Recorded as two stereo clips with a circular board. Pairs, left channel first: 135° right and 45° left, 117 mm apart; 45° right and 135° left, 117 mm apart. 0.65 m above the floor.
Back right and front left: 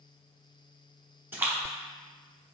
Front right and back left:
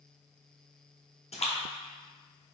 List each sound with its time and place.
1.3 s a splash: 25° right, 0.8 m